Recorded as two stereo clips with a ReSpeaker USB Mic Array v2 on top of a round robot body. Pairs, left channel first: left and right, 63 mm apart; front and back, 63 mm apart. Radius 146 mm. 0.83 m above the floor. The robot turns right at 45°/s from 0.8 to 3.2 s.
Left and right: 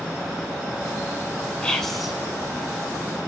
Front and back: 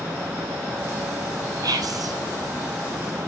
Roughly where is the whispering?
Behind.